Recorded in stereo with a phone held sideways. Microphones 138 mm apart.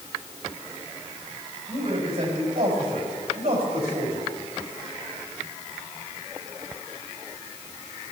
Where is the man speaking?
50° right (ahead or behind), 5 m.